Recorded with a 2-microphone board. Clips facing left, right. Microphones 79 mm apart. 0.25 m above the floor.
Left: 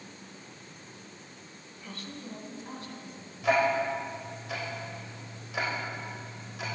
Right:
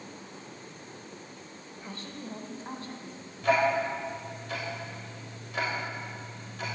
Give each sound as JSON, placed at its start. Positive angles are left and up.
{"t": 1.8, "sound": "a woman speaking", "side_deg": -30, "distance_m": 1.1}
{"t": 3.4, "sound": "ticking", "side_deg": 5, "distance_m": 3.0}